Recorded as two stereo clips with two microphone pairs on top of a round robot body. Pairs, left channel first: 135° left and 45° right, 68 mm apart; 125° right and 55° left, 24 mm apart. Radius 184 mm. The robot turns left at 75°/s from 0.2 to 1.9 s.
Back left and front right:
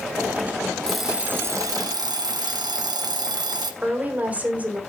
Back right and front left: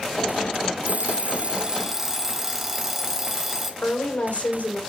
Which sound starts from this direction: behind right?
A woman speaking, at 3.8 s.